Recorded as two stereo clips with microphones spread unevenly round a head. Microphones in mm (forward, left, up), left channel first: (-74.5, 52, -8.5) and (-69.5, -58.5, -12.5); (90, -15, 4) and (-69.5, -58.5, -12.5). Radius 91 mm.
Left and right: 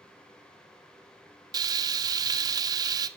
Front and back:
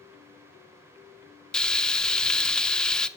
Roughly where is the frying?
Ahead right.